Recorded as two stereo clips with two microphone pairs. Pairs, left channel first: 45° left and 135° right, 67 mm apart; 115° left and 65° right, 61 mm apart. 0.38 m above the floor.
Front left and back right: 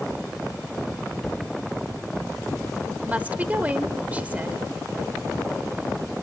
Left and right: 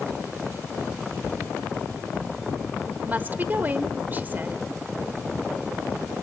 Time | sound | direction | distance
1.2 | a cupboard door | 45° right | 2.5 m
3.0 | a woman speaking | 85° right | 1.0 m